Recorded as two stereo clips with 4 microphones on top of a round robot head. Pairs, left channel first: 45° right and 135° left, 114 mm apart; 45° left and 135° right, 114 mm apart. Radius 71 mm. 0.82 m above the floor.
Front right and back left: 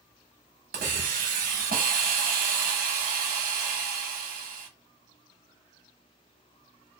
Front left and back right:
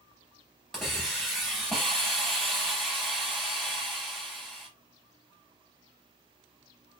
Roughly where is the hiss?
Behind left.